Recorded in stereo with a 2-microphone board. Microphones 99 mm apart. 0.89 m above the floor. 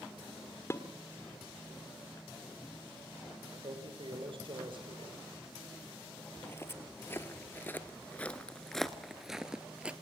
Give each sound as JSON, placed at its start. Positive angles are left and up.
{"t": 0.7, "sound": "dishes clattering", "side_deg": 25, "distance_m": 1.5}
{"t": 3.5, "sound": "a man speaking", "side_deg": -60, "distance_m": 3.0}
{"t": 6.4, "sound": "footsteps", "side_deg": 25, "distance_m": 1.5}